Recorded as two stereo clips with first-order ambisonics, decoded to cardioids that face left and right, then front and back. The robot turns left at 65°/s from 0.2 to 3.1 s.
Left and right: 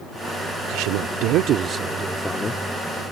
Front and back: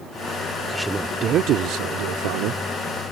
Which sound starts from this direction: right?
A man speaking, at 0.7 s.